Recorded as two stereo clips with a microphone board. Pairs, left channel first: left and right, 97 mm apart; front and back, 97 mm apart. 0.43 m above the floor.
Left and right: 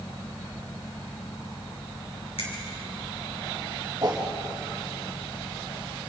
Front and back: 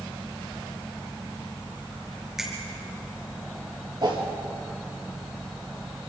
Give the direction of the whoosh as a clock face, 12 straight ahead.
5 o'clock.